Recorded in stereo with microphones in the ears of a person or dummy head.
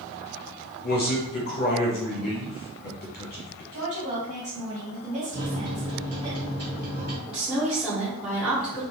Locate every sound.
0.8 s a man speaking: 45° left (ahead or behind), 1.0 m
3.7 s a woman speaking: 35° right (ahead or behind), 1.6 m
5.3 s a microwave: 40° right (ahead or behind), 1.5 m
7.3 s a woman speaking: centre (ahead or behind), 1.0 m